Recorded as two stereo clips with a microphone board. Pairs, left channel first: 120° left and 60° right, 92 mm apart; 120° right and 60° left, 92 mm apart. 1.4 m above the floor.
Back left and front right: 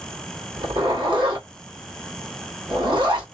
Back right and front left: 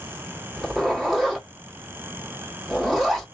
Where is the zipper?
25° right, 1.2 m.